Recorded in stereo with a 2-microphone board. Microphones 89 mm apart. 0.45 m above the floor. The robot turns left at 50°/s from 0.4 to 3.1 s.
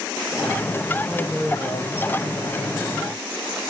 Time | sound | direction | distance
1.0 | a woman speaking | 170° left | 1.9 m